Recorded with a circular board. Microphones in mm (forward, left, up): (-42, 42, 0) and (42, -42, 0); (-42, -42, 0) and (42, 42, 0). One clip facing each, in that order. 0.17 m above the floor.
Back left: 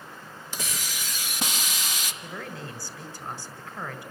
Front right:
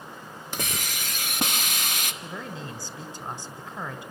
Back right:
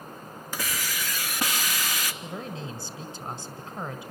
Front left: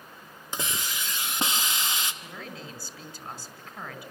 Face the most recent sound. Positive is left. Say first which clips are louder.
# front right 1 dB, back right 5 dB
turn(degrees=-95)